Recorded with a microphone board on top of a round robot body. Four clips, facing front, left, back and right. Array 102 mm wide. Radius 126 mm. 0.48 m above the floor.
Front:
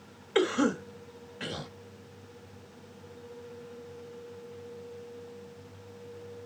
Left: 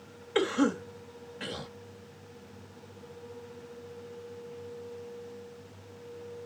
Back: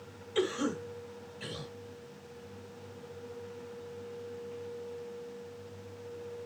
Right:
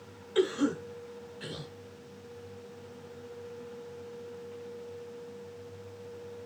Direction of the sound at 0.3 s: 30° left.